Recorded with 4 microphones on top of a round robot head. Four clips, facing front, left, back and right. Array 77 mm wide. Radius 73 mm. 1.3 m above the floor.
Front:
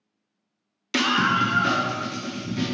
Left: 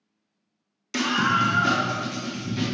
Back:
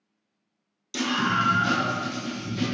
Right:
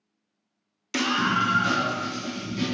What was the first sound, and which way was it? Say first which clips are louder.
A scream: left 2 dB, front 4 dB; 10° right.